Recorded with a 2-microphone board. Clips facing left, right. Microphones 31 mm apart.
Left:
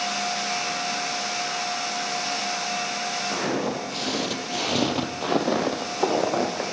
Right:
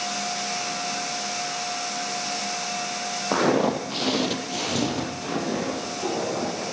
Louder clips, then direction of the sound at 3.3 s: Right 9 dB; 40° right (ahead or behind).